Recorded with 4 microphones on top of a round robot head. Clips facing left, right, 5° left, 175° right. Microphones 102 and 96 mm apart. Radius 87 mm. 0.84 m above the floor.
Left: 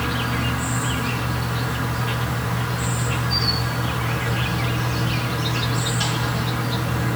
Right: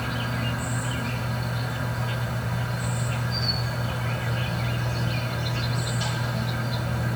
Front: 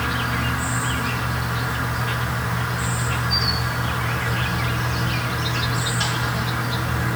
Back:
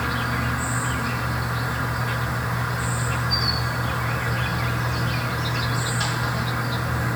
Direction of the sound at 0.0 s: 95° left.